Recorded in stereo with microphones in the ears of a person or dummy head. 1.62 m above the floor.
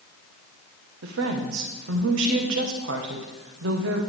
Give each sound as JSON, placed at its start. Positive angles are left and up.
{"t": 1.0, "sound": "a woman speaking", "side_deg": -75, "distance_m": 1.5}